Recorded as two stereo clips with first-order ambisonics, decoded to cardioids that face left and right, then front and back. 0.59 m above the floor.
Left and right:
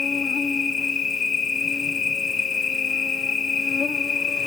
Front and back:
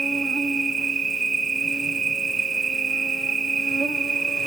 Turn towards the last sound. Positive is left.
turn(degrees=120)